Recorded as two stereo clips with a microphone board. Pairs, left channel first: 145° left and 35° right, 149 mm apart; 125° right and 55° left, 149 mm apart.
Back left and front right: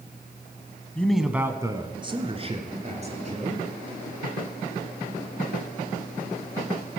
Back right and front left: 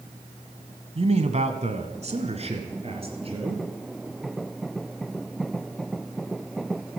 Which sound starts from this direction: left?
A man speaking, at 0.9 s.